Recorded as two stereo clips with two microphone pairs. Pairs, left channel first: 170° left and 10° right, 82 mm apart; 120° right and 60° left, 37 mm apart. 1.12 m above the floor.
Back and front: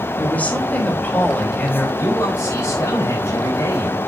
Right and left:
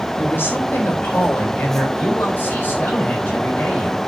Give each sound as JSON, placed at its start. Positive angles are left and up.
{"t": 0.2, "sound": "a woman speaking", "azimuth_deg": -120, "distance_m": 3.5}
{"t": 2.0, "sound": "a man speaking", "azimuth_deg": -135, "distance_m": 7.0}